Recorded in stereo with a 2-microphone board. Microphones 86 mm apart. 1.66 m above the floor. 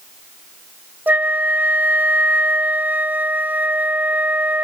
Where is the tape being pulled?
No tape being pulled in this recording.